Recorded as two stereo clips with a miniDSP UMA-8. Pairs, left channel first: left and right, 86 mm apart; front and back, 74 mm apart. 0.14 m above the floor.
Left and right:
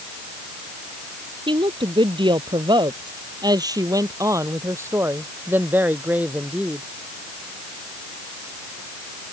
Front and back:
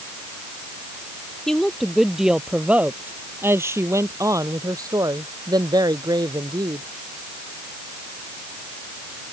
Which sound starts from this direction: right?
A woman speaking, at 1.5 s.